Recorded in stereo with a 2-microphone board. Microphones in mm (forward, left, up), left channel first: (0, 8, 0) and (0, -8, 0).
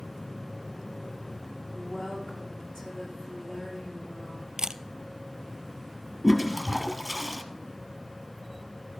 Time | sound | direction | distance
1.7 | a woman speaking | 65° left (ahead or behind) | 7.5 m
4.6 | a camera shutter | 45° right (ahead or behind) | 0.6 m
6.2 | a toilet flushing | 10° left (ahead or behind) | 1.3 m